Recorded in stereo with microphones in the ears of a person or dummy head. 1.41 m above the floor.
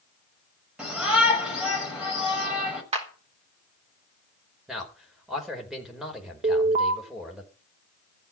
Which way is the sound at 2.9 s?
35° right (ahead or behind).